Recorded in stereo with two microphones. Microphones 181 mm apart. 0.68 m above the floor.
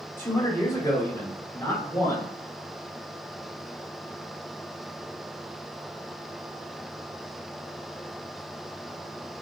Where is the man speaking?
15° left (ahead or behind), 2 m.